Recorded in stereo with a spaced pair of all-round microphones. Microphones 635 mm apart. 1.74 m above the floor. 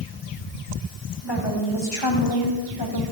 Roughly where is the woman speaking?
Left.